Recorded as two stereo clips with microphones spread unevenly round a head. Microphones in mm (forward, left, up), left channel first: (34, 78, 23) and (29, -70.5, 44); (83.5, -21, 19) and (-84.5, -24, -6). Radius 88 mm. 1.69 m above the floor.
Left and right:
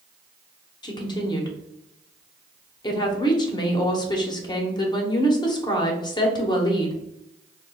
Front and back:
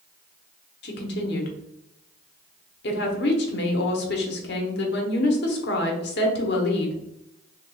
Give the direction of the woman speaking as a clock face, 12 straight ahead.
11 o'clock.